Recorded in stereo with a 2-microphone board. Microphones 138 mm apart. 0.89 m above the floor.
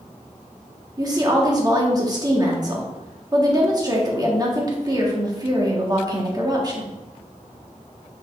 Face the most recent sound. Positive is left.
turn(degrees=-30)  # may be behind; listen again after turning